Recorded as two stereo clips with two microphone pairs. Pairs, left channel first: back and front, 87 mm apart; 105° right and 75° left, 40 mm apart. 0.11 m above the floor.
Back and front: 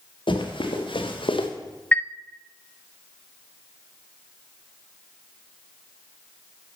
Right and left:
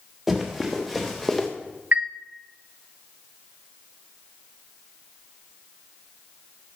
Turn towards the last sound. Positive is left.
turn(degrees=110)